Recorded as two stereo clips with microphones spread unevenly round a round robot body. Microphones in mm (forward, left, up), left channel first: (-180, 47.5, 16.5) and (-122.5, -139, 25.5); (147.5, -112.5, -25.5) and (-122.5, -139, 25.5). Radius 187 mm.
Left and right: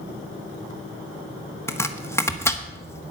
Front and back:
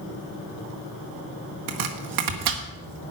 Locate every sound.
1.7 s chopping: 175° right, 1.5 m